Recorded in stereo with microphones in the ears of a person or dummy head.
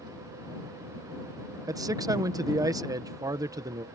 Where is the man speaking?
15° right (ahead or behind).